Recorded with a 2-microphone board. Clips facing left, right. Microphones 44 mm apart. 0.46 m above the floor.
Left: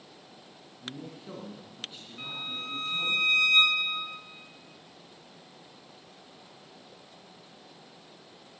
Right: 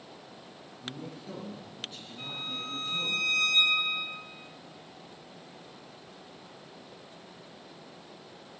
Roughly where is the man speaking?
Left.